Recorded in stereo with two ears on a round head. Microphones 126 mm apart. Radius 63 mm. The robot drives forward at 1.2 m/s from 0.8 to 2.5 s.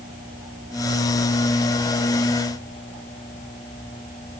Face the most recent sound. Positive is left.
No sound to turn to.